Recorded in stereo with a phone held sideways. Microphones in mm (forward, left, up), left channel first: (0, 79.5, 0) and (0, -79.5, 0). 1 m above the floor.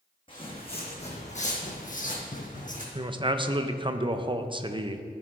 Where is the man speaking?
30° right (ahead or behind), 0.5 m.